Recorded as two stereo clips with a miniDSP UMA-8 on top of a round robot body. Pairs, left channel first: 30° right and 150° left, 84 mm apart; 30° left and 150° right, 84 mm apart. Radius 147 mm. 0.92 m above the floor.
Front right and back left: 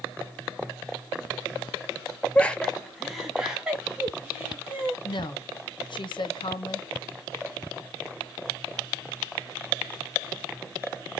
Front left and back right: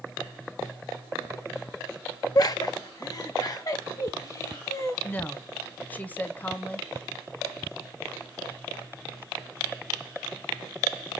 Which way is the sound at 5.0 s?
40° right.